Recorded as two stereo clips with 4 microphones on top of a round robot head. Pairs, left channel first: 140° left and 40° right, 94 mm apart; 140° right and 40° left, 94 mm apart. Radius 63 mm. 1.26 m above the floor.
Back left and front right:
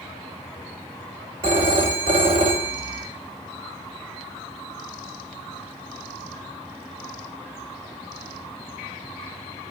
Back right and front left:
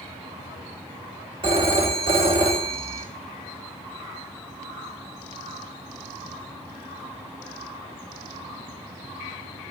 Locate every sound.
1.4 s a phone ringing: 5° right, 1.8 m